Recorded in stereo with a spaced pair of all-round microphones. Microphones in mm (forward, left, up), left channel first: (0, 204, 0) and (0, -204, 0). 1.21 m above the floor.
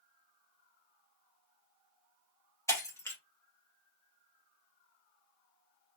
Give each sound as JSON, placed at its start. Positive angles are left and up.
{"t": 2.7, "sound": "breaking glass", "side_deg": 5, "distance_m": 1.0}